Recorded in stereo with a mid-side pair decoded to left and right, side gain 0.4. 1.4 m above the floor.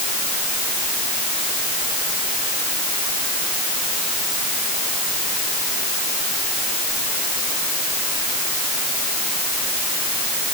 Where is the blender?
No blender in this recording.